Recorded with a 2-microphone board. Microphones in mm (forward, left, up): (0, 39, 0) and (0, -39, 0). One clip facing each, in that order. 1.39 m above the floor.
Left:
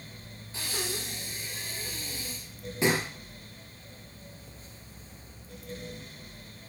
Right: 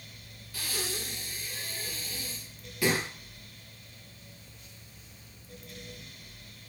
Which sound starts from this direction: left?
Breathing, at 0.5 s.